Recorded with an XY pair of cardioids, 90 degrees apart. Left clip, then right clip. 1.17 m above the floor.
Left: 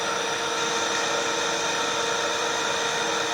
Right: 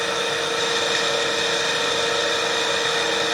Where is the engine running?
60° right, 4 m.